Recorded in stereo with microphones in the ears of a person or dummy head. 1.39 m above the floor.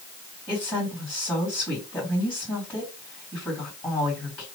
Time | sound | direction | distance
0.5 | a woman speaking | 25° left (ahead or behind) | 1.9 m